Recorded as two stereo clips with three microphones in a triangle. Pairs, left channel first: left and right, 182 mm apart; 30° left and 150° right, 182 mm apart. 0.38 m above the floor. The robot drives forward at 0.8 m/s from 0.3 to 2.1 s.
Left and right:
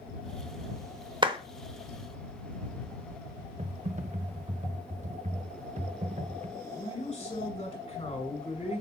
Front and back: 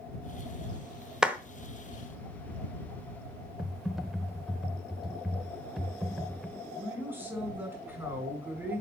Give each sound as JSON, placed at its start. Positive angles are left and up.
{"t": 1.2, "sound": "a clap", "azimuth_deg": -70, "distance_m": 0.8}
{"t": 3.6, "sound": "typing on a keyboard", "azimuth_deg": -65, "distance_m": 0.7}
{"t": 6.6, "sound": "a man speaking", "azimuth_deg": 140, "distance_m": 2.0}